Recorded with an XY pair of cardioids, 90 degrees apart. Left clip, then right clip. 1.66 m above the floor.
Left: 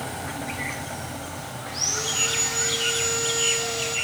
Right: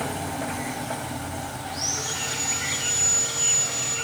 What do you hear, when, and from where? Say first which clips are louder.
1.7 s sawing: left 3 dB; 60° left, 5.5 m